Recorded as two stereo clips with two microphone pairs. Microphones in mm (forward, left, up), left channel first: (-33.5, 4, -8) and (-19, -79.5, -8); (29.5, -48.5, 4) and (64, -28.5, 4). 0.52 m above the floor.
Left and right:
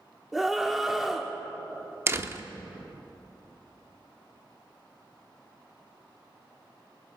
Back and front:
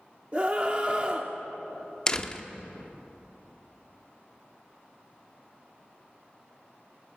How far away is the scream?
About 0.8 m.